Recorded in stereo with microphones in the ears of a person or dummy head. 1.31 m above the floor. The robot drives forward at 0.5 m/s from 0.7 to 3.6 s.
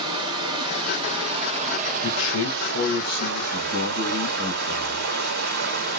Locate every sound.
0.0 s running water: 25° right (ahead or behind), 1.2 m; by 6.0 s 50° right (ahead or behind), 0.7 m
2.0 s a man speaking: 80° left, 0.9 m; by 5.1 s 45° left (ahead or behind), 1.3 m